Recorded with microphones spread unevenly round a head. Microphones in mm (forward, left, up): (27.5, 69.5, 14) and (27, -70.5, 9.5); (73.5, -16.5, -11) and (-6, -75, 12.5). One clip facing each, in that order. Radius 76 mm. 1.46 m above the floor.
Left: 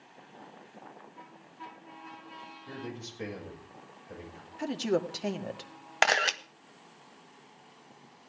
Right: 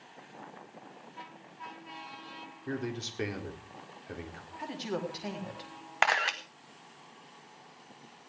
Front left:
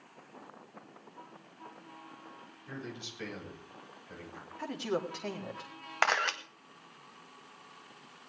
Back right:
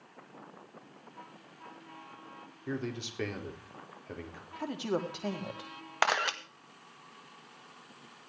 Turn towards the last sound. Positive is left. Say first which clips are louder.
# left 2 dB, even
turn(degrees=140)